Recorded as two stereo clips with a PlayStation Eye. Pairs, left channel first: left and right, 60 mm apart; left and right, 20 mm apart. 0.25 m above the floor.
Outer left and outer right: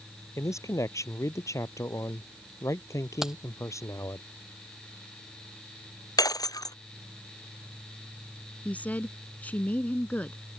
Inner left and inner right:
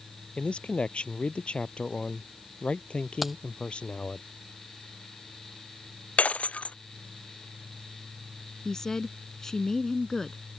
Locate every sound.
0.4 s a man speaking: 55° left (ahead or behind)
3.2 s keys jangling: 10° right (ahead or behind)
6.2 s breaking glass: 85° left
8.7 s a woman speaking: 25° left (ahead or behind)